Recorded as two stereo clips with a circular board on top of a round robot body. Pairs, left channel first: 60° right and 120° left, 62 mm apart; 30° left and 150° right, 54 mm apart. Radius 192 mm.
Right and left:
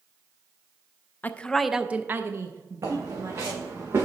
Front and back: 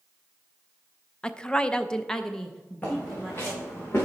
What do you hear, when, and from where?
1.2 s a woman speaking: 30° right, 0.7 m; by 3.8 s 120° left, 1.7 m
2.8 s footsteps: 85° left, 2.5 m; by 4.1 s 75° left, 3 m